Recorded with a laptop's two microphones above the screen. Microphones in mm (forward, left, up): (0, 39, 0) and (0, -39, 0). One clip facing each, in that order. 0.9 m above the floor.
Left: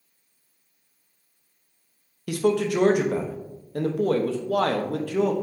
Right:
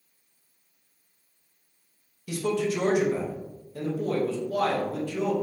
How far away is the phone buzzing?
I don't hear a phone buzzing.